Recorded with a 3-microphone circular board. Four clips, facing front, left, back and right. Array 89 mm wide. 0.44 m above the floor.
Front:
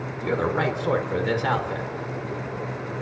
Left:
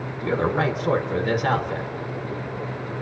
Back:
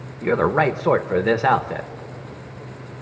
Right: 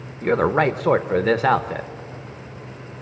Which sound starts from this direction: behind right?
A man speaking, at 0.2 s.